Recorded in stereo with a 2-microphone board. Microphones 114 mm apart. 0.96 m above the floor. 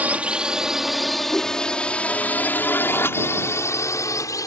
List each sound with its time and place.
0.0 s a drone: 15° right (ahead or behind); by 4.5 s 30° left (ahead or behind)
1.3 s a whoosh: 10° left (ahead or behind)